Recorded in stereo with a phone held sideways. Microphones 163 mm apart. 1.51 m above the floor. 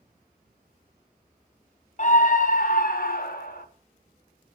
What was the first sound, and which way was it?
A scream, 50° left (ahead or behind).